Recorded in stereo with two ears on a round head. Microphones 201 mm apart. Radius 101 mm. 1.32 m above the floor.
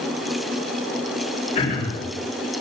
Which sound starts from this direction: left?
Throat clearing, at 1.6 s.